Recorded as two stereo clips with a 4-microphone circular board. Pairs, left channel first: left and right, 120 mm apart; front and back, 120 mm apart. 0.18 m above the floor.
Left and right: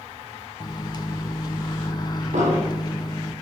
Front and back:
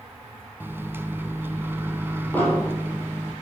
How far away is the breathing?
I don't hear breathing.